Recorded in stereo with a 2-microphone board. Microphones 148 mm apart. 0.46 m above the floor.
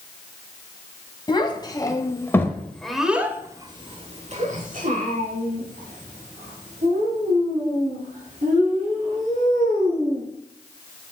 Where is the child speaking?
30° left (ahead or behind), 1.9 m; by 10.3 s 70° right (ahead or behind), 5 m.